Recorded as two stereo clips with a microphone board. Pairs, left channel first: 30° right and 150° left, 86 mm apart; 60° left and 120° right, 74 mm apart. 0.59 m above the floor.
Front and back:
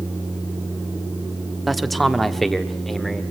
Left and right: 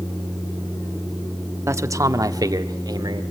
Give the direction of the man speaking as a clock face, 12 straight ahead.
4 o'clock.